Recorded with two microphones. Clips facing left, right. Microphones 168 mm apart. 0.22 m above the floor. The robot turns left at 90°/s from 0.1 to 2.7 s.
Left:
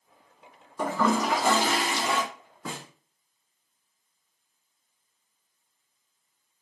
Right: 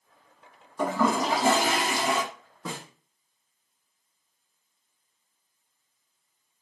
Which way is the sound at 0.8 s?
5° left.